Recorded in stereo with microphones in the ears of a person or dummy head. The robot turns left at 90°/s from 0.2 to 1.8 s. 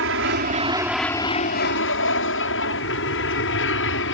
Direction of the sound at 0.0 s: 115° right.